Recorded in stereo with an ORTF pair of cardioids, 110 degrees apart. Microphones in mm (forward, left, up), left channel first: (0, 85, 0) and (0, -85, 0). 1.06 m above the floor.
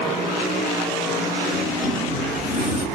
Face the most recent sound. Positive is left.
turn(degrees=65)